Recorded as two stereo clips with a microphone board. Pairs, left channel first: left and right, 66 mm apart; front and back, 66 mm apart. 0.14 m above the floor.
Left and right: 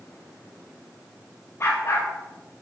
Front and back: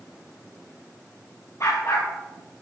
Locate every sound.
1.6 s a dog barking: 40° left, 6 m; by 2.6 s 45° left, 6.5 m